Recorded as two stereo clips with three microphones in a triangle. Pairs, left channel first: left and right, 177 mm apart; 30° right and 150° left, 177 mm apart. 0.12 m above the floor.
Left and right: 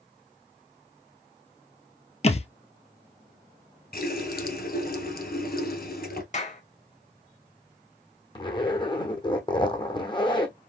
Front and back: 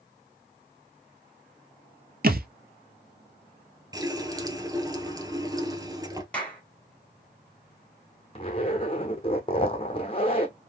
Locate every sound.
2.2 s a thud: 135° left, 0.8 m
3.9 s a running tap: 85° left, 1.4 m
6.3 s a clap: 50° left, 2.5 m
8.3 s a zipper: 25° left, 1.5 m